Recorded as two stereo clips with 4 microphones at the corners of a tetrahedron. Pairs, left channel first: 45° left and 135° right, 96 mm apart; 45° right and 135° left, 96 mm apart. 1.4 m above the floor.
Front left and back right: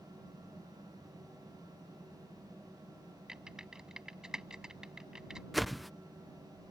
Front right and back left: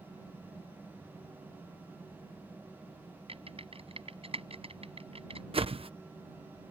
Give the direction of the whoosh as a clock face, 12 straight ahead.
7 o'clock.